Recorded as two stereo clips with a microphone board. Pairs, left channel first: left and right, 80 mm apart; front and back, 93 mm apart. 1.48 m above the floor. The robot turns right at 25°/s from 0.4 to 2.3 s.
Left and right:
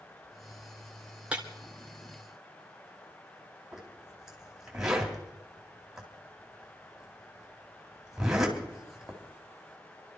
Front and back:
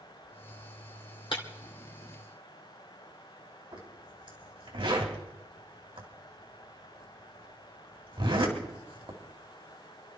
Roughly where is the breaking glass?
Ahead.